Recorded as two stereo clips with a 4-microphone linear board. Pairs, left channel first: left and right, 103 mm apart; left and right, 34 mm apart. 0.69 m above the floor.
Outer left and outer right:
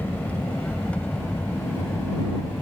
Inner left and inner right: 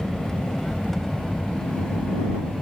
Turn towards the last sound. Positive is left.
turn(degrees=10)  # may be behind; listen again after turning